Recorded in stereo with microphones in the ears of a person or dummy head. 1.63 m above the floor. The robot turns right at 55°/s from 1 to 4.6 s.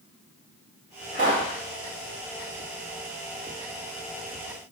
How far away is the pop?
About 1.4 m.